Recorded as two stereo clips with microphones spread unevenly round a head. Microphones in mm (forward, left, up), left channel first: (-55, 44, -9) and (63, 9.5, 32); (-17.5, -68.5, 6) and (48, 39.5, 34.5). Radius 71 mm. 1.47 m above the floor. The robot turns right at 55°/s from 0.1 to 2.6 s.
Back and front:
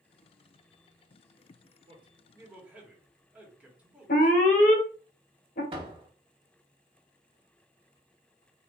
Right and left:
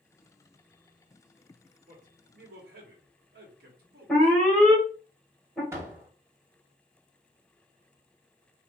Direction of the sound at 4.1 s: 155° left.